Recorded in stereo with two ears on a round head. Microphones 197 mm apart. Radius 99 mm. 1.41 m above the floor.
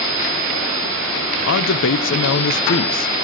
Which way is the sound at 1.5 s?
65° left (ahead or behind).